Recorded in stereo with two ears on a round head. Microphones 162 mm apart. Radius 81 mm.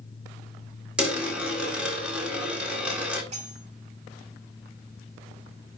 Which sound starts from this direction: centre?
A dropped coin, at 1.0 s.